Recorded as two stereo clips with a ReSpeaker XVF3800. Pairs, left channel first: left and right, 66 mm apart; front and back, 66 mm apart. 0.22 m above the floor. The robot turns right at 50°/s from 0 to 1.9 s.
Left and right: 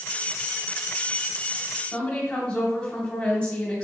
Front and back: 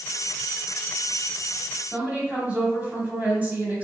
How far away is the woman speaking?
About 1.1 m.